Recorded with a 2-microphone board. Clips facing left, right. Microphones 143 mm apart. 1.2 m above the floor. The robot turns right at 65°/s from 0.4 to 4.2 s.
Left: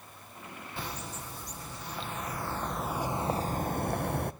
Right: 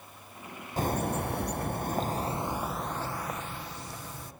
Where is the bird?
130° right, 0.9 m; by 4.3 s 90° left, 0.9 m.